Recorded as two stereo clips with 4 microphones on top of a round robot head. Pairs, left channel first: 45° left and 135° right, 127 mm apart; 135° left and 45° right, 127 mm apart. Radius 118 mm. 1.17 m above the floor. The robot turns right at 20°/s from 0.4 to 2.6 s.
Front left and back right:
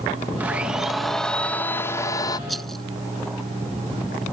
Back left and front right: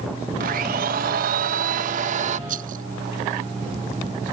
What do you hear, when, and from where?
0.4 s a blender: 55° right; by 2.4 s 15° right
2.5 s a rattle: 45° right; by 2.9 s 40° right